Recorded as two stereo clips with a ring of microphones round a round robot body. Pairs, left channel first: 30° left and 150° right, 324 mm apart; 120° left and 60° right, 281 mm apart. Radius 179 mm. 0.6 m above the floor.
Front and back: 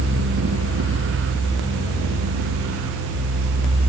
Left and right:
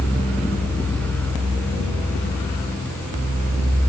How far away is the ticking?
No ticking in this recording.